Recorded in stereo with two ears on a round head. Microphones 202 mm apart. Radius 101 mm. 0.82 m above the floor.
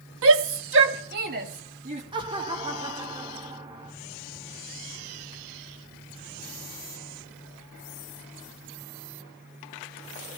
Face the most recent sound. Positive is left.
turn(degrees=-20)  # may be behind; listen again after turning